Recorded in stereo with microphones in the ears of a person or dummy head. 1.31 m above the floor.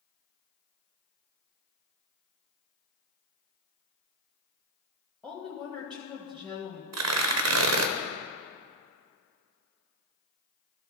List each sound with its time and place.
5.2 s a woman speaking: 5° left (ahead or behind), 1.2 m
6.9 s tearing paper: 70° right (ahead or behind), 0.6 m